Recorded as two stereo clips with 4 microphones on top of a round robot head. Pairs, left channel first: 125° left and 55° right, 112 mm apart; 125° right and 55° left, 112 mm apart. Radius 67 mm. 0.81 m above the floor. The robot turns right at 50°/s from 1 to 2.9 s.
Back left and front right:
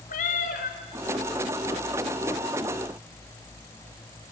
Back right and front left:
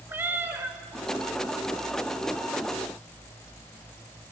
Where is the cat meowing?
125° left, 1.8 m.